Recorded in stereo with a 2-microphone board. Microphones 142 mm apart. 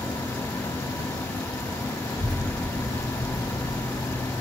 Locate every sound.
2.0 s a child speaking: 30° left (ahead or behind), 1.9 m